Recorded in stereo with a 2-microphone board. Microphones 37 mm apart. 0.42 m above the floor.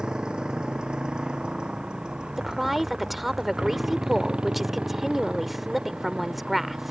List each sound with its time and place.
0.0 s a motorcycle: 20° right (ahead or behind); by 6.9 s 25° right (ahead or behind)
2.4 s a woman speaking: 5° right (ahead or behind)